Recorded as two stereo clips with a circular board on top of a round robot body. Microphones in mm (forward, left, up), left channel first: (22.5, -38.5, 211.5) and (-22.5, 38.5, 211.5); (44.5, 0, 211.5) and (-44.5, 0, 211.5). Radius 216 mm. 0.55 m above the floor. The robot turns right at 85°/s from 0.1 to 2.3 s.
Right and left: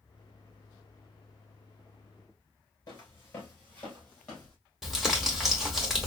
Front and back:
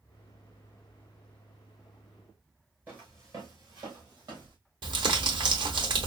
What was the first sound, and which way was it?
Footsteps, 110° right.